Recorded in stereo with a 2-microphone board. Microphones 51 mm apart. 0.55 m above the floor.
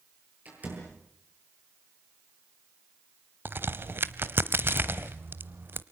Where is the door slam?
35° right (ahead or behind), 10 m.